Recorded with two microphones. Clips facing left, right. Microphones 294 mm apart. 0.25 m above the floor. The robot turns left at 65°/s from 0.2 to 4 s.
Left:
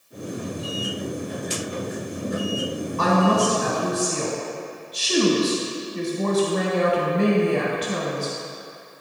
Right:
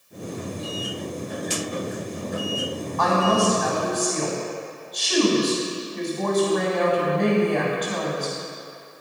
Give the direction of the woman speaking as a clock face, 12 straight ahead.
8 o'clock.